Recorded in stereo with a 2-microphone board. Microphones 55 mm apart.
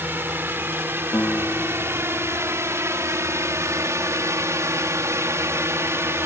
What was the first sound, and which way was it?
A drone, 40° right (ahead or behind).